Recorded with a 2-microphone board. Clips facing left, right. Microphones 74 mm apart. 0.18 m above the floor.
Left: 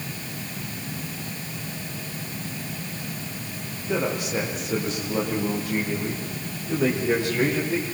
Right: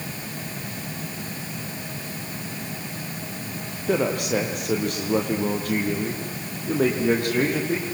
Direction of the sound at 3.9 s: 70° right (ahead or behind).